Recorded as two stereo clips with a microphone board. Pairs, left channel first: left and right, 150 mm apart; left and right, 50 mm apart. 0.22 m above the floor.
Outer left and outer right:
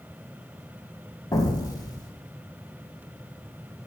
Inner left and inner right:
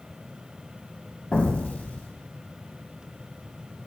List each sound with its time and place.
1.3 s an explosion: 25° left (ahead or behind), 1.1 m